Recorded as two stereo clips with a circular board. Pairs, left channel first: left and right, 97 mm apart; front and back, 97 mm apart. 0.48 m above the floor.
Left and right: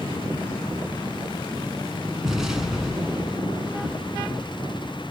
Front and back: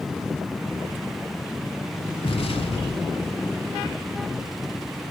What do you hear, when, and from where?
2.2 s an explosion: 5° right, 0.7 m